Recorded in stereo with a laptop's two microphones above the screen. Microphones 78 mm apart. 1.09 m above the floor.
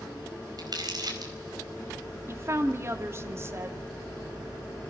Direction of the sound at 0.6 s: 55° right (ahead or behind).